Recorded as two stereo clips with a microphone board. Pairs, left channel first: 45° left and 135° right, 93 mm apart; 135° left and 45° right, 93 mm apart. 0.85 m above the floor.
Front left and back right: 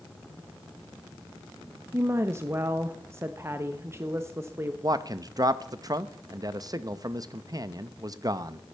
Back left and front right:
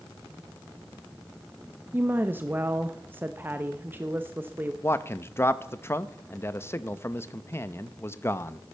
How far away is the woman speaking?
About 0.7 m.